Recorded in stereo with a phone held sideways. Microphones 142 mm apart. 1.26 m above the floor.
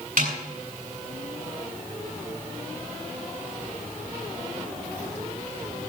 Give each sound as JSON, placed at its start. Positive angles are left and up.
{"t": 0.2, "sound": "a snare drum", "side_deg": -80, "distance_m": 8.5}